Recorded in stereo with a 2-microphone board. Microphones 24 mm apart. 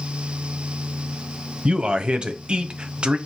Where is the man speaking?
45° right (ahead or behind), 0.6 m.